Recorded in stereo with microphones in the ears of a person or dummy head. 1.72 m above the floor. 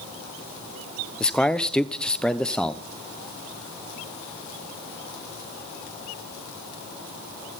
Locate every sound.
1.2 s a man speaking: 5° left (ahead or behind), 0.8 m